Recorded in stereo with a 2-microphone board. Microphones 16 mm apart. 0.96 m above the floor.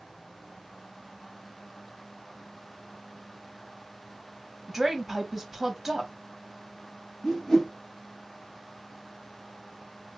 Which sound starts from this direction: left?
A whoosh, at 7.2 s.